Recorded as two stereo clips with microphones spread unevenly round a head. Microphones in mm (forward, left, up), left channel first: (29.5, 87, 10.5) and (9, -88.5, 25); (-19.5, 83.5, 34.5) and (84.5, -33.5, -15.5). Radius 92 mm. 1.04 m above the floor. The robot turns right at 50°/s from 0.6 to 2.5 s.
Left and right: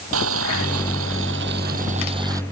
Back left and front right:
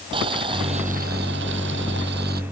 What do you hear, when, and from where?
0.1 s boiling: 115° right; by 2.4 s 25° right